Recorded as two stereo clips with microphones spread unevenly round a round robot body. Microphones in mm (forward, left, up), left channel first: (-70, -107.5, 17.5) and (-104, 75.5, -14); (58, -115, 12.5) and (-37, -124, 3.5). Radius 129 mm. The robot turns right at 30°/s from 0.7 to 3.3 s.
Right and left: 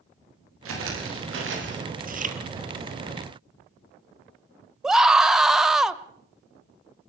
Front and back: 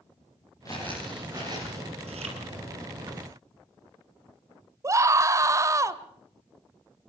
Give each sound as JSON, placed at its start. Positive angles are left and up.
{"t": 0.7, "sound": "footsteps", "azimuth_deg": 85, "distance_m": 9.0}
{"t": 2.0, "sound": "chewing", "azimuth_deg": 140, "distance_m": 2.5}
{"t": 4.8, "sound": "a scream", "azimuth_deg": 175, "distance_m": 1.1}